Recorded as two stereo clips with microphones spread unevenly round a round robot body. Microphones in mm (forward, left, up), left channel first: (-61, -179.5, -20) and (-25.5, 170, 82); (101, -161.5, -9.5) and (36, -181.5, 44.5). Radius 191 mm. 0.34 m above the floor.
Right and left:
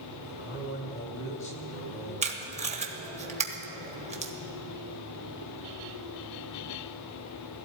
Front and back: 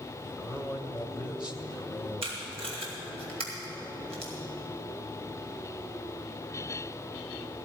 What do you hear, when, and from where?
0.2 s a man speaking: 45° right, 2 m
2.2 s tape being pulled: 165° left, 1.6 m